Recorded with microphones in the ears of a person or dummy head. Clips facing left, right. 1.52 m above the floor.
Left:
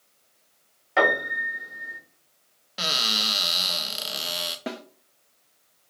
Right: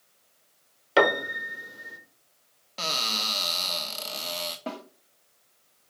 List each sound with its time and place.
1.0 s a piano: 45° right (ahead or behind), 1.5 m
2.8 s a cupboard door: 15° left (ahead or behind), 0.7 m
4.7 s a snare drum: 20° left (ahead or behind), 0.8 m